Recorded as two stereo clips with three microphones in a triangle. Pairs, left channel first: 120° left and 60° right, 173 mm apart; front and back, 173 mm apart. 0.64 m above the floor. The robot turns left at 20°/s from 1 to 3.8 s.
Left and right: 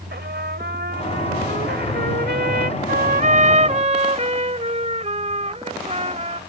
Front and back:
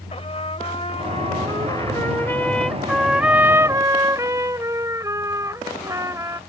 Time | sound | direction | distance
0.1 | a trumpet | 55° right | ?